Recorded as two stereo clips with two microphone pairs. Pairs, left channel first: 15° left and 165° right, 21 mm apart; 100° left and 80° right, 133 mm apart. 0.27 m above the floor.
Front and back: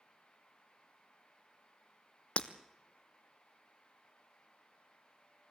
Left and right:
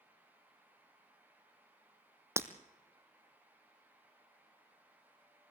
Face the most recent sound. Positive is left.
turn(degrees=-10)